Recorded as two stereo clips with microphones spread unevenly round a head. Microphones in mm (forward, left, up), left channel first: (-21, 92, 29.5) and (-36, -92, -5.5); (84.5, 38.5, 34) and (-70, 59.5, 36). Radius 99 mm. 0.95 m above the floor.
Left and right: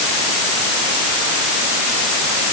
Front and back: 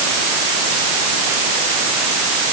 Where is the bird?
I don't hear a bird.